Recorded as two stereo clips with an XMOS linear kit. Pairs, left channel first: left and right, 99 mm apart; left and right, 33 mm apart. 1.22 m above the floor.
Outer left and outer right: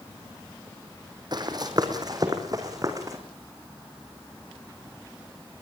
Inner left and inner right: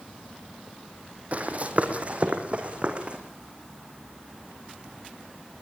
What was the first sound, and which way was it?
Running footsteps, 45° right (ahead or behind).